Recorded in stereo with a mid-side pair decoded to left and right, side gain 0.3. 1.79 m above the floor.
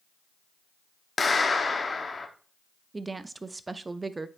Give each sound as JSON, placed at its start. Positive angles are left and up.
{"t": 1.2, "sound": "a clap", "azimuth_deg": 45, "distance_m": 1.0}
{"t": 2.9, "sound": "a woman speaking", "azimuth_deg": -35, "distance_m": 0.5}